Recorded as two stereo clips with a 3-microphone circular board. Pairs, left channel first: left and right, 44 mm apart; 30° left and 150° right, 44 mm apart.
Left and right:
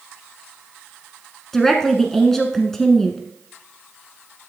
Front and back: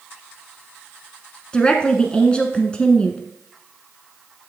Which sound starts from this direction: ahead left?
A woman speaking, at 1.5 s.